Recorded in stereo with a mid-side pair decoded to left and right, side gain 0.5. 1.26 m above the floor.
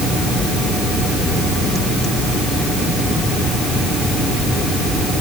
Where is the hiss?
I don't hear a hiss.